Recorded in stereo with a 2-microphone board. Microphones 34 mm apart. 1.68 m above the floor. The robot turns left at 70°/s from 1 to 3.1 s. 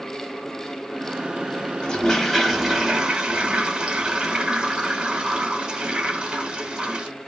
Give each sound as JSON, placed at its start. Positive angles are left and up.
{"t": 1.8, "sound": "a toilet flushing", "azimuth_deg": 40, "distance_m": 0.9}